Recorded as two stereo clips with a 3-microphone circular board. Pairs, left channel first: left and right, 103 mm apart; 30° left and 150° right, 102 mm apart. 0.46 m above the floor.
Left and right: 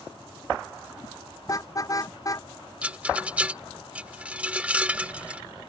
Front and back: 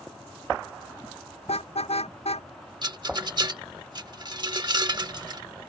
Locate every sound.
1.4 s a car horn: 35° left
2.8 s a rattle: 160° right